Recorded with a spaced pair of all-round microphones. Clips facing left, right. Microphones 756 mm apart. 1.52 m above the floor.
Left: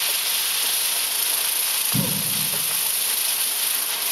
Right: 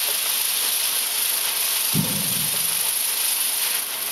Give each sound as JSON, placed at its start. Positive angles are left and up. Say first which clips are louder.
{"t": 1.9, "sound": "a cough", "louder": "right 1 dB", "side_deg": 5, "distance_m": 5.5}